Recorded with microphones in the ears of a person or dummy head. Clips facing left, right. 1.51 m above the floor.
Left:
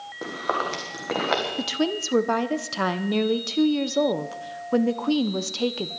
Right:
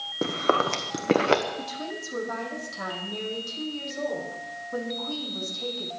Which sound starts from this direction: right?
Chewing, at 0.2 s.